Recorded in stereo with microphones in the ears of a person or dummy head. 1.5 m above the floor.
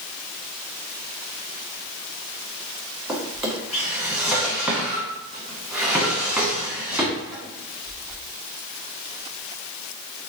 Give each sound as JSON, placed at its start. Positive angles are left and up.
{"t": 3.1, "sound": "a drawer", "side_deg": 0, "distance_m": 1.1}